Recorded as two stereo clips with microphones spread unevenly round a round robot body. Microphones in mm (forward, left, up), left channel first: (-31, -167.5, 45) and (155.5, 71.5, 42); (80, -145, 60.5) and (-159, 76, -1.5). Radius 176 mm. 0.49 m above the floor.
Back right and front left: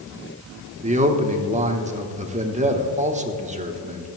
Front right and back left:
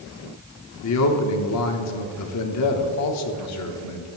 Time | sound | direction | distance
0.8 | a man speaking | 5° right | 1.1 m